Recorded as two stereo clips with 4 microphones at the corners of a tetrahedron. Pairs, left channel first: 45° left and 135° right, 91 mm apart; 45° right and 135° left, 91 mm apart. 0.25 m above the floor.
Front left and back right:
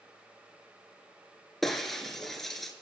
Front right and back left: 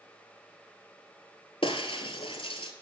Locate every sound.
1.6 s breaking glass: 45° right, 0.9 m